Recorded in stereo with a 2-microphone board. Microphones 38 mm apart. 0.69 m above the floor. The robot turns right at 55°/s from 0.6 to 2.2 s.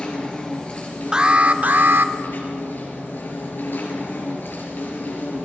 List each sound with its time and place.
0.0 s an insect: 25° left, 4.5 m; by 5.5 s 115° left, 4.5 m
1.1 s an alarm: 160° right, 0.9 m; by 2.1 s 105° right, 0.9 m